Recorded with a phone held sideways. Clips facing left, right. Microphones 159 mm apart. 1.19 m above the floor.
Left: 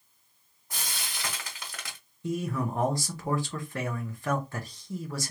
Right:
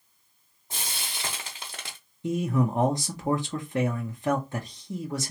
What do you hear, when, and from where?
0.7 s frying: 25° right (ahead or behind), 1.0 m
2.2 s a man speaking: 20° right (ahead or behind), 0.7 m